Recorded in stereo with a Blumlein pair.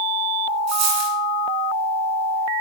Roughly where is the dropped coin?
Ahead right.